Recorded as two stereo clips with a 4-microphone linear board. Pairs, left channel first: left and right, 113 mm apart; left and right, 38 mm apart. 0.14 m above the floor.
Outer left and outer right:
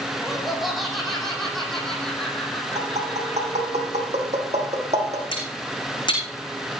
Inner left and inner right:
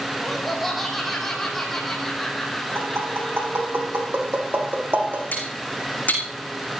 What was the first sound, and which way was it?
Laughter, centre (ahead or behind).